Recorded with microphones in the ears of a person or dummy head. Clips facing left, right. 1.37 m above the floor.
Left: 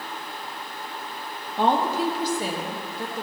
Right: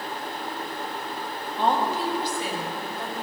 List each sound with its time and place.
1.6 s a woman speaking: 50° left (ahead or behind), 1.6 m; by 3.2 s 30° left (ahead or behind), 3 m